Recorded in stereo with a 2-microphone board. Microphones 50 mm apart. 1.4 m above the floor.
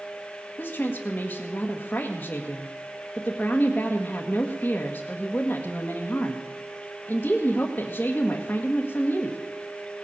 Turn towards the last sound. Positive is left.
turn(degrees=30)  # may be behind; listen again after turning